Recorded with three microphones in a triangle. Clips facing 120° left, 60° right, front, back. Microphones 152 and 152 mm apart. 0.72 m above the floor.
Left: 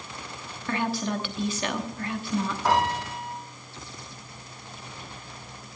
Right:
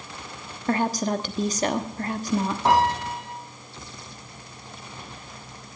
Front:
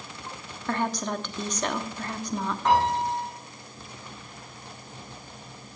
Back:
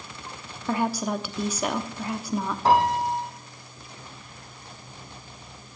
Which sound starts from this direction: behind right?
A piano, at 2.6 s.